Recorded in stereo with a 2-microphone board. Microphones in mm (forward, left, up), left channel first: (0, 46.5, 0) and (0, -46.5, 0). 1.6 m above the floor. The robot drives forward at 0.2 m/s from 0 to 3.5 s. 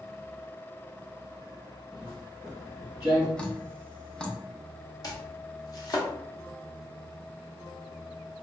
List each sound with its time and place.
1.9 s footsteps: 10° left (ahead or behind), 1.9 m; by 3.3 s 15° right (ahead or behind), 2 m
3.4 s dripping: 10° left (ahead or behind), 0.6 m
5.0 s chopping: 45° left (ahead or behind), 0.7 m